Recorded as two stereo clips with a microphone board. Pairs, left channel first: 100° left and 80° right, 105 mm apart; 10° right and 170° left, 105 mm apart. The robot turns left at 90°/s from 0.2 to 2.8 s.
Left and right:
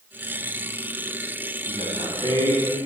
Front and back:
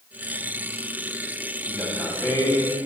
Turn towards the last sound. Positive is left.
turn(degrees=10)